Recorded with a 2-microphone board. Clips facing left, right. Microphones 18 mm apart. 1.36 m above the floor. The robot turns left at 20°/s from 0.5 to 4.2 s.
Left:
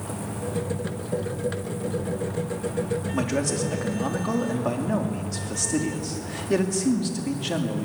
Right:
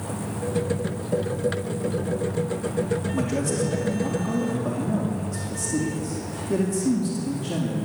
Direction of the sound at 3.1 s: 30° left (ahead or behind).